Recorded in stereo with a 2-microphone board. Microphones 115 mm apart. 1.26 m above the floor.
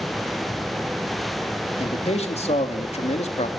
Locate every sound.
1.8 s a man speaking: 70° left (ahead or behind), 3 m